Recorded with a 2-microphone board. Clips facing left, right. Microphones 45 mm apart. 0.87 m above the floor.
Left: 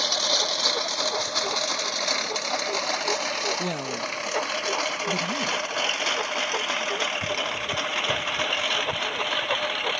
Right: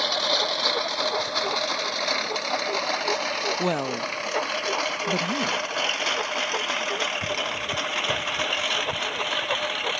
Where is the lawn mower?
10° right (ahead or behind); by 10.0 s 5° left (ahead or behind).